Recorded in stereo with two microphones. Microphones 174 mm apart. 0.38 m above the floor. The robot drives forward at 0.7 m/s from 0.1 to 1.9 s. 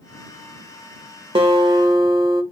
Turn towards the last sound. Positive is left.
turn(degrees=-25)  # may be behind; listen again after turning